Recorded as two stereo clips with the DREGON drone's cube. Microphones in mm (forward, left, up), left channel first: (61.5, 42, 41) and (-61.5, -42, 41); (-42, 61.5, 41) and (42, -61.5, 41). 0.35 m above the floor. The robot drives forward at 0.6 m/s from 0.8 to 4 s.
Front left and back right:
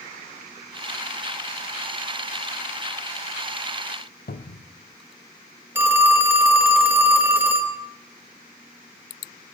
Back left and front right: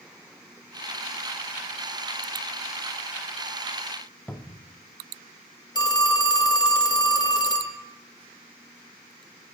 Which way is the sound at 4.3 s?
45° left.